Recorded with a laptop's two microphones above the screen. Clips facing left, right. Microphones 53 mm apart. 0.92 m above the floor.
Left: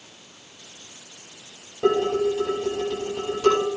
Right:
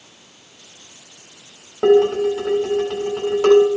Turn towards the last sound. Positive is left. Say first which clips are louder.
# right 7 dB
turn(degrees=-80)